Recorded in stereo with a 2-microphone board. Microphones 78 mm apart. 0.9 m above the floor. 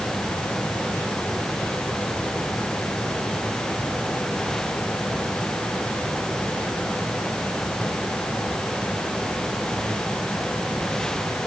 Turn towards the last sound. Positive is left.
No sound to turn to.